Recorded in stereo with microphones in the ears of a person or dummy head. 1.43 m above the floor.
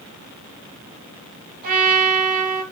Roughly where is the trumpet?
Right.